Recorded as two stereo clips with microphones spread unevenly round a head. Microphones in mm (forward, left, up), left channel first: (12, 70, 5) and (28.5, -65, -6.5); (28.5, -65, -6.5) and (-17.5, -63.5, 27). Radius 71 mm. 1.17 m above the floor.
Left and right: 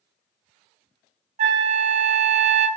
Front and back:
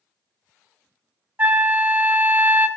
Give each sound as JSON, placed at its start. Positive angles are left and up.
{"t": 1.4, "sound": "a flute", "azimuth_deg": -135, "distance_m": 0.7}